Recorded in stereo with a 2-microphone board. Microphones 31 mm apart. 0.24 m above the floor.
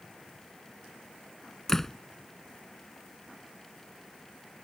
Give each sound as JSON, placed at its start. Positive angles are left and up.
{"t": 1.7, "sound": "a door slam", "side_deg": 15}